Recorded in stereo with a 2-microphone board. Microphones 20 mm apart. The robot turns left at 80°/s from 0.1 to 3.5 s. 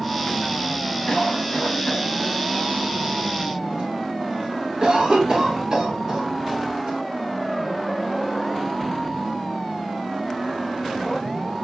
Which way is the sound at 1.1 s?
25° left (ahead or behind).